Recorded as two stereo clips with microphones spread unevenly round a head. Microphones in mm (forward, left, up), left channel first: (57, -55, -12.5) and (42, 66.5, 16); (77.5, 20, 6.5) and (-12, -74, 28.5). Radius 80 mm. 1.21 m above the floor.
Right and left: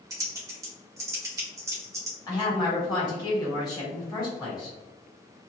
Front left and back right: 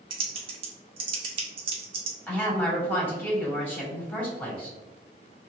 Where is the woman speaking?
30° right, 1.6 m.